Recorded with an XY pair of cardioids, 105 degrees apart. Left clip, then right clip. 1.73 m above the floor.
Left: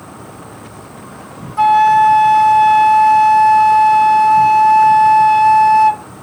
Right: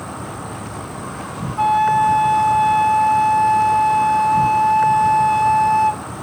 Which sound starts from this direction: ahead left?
A flute, at 1.6 s.